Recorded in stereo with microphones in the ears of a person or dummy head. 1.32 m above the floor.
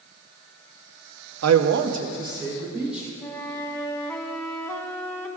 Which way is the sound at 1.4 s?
85° right.